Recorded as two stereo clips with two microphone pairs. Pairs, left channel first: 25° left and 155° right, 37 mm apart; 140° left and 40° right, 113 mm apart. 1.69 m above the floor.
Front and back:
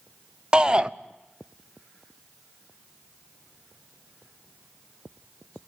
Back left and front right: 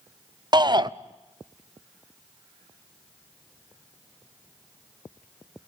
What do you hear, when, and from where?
0.5 s a shout: 90° right, 0.9 m